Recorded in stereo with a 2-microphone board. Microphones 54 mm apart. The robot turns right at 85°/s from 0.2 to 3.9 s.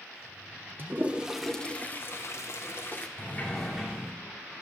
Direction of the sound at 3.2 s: 135° left.